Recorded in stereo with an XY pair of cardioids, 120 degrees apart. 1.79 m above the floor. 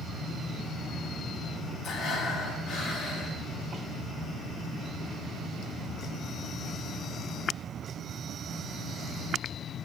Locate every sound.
1.8 s breathing: 70° left, 2.5 m